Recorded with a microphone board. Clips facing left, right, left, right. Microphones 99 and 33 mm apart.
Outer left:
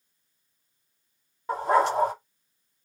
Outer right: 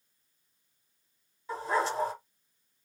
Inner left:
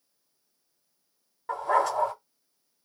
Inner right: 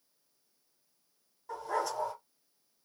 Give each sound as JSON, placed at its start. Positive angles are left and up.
{"t": 1.5, "sound": "a dog barking", "side_deg": 60, "distance_m": 0.8}